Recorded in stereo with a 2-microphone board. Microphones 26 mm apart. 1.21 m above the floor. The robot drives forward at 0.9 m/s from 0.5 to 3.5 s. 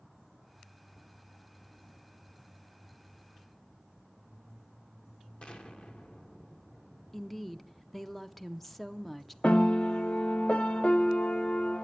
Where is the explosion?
50° left (ahead or behind), 1.0 m.